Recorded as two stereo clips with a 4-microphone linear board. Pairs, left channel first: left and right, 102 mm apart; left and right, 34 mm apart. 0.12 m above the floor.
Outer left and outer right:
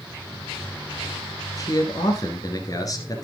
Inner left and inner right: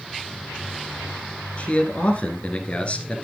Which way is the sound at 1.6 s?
40° left (ahead or behind).